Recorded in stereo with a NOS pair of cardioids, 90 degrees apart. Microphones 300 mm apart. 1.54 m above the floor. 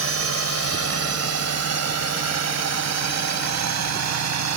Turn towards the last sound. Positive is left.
turn(degrees=-65)